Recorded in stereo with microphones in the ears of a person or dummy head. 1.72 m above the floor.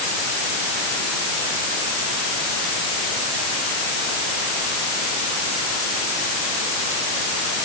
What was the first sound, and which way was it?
Only background noise.